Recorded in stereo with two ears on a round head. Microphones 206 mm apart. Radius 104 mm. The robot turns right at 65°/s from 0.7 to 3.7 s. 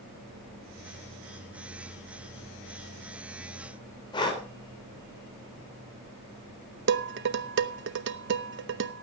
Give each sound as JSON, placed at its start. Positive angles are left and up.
{"t": 4.1, "sound": "breathing", "side_deg": 20, "distance_m": 3.5}
{"t": 6.9, "sound": "dishes clattering", "side_deg": -50, "distance_m": 0.7}